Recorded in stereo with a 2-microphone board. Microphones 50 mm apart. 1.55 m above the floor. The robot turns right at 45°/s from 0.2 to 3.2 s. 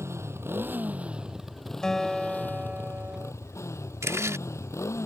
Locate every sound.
0.0 s a motorcycle: 65° right; by 5.1 s 70° left
1.8 s a guitar: 165° left; by 3.3 s 130° right
4.0 s chewing: 75° right (ahead or behind)